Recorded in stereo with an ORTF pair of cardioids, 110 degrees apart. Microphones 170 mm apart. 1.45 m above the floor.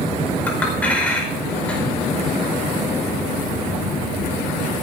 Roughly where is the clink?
Ahead.